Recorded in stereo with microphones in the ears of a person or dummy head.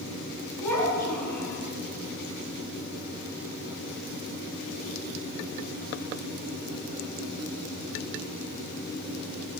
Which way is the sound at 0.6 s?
5° left (ahead or behind).